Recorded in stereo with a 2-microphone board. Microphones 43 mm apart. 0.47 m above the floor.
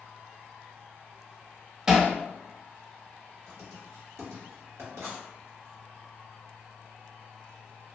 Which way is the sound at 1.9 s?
15° right (ahead or behind).